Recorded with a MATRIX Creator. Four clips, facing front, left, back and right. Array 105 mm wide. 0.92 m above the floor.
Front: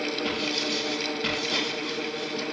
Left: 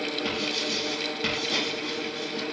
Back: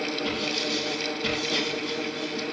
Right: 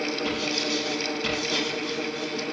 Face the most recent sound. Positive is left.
turn(degrees=65)